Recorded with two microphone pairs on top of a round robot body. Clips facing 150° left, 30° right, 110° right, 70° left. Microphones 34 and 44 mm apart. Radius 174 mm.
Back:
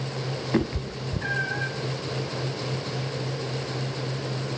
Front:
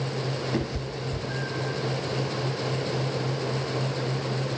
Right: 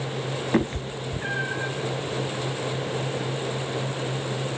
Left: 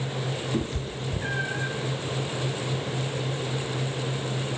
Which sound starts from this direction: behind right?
A cat meowing, at 0.5 s.